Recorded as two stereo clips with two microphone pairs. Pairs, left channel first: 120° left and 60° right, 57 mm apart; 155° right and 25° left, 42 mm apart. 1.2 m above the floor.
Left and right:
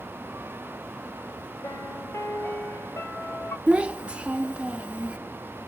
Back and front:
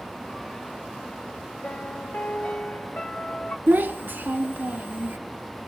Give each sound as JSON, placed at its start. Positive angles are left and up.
{"t": 1.6, "sound": "a piano", "azimuth_deg": 160, "distance_m": 2.0}
{"t": 3.7, "sound": "a child speaking", "azimuth_deg": 5, "distance_m": 0.9}